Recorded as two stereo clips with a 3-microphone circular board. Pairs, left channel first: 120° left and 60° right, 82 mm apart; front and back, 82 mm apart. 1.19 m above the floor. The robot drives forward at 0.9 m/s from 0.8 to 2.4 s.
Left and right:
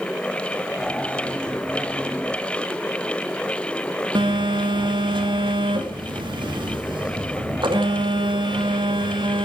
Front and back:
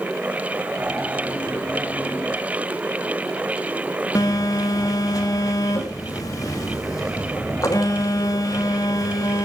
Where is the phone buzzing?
45° right, 2.5 m.